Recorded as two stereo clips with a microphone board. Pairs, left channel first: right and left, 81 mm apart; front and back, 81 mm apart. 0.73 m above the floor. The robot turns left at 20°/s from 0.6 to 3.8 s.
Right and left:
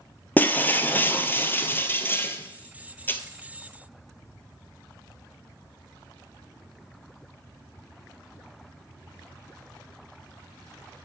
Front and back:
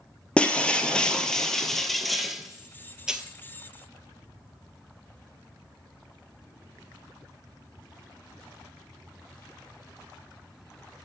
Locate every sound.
0.4 s breaking glass: 60° right, 0.7 m; by 3.2 s 110° right, 0.7 m